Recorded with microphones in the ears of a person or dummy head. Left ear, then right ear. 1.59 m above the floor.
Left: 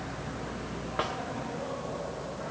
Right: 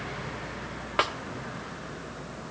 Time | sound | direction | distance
1.0 | a snare drum | 45° right (ahead or behind) | 1.0 m